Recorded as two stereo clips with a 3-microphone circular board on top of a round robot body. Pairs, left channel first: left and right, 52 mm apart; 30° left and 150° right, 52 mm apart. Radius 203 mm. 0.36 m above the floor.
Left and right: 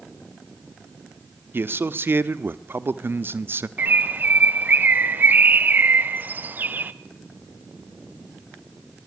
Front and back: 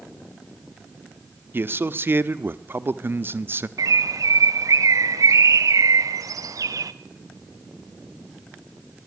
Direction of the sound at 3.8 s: 145° right.